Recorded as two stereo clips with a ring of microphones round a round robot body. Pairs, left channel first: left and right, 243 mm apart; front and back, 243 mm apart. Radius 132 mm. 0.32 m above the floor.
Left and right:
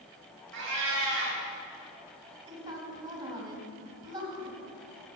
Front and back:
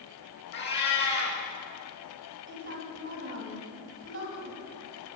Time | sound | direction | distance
0.5 | a cat meowing | 45° right | 2.5 m
2.5 | a woman speaking | 160° right | 2.5 m